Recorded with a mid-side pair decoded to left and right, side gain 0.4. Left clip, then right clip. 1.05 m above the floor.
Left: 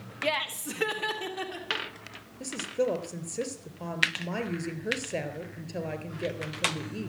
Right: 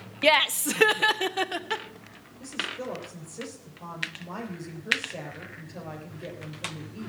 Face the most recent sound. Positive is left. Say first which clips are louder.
# left 3 dB
turn(degrees=65)